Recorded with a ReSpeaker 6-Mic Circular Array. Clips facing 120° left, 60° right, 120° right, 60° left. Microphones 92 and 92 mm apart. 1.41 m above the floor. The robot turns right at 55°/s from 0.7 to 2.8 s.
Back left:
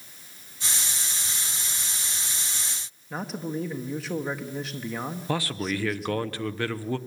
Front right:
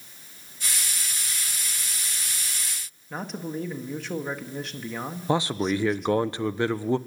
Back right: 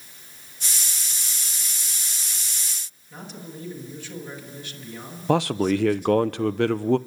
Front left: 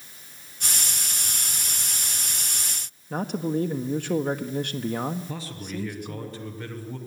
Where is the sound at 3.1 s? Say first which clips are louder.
Back left 1 dB, front left 13 dB; 30° left, 1.6 m.